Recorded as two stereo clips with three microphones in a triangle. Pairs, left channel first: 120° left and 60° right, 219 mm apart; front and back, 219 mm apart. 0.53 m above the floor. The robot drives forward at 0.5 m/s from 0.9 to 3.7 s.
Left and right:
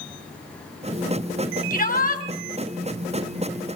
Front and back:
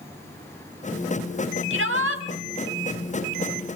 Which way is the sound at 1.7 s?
170° left.